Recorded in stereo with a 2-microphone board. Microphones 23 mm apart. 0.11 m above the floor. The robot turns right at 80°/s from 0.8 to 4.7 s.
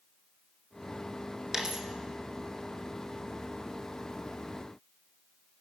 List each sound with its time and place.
1.5 s a dropped coin: 20° right (ahead or behind), 0.9 m; by 1.9 s 30° right (ahead or behind), 0.9 m